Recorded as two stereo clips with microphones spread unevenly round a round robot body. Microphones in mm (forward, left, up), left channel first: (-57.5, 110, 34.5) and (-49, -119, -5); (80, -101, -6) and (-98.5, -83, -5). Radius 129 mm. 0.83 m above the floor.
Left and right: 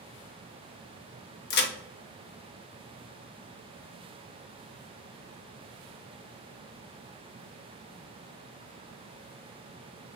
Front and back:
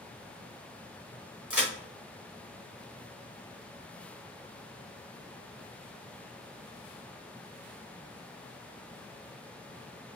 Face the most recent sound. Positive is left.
turn(degrees=95)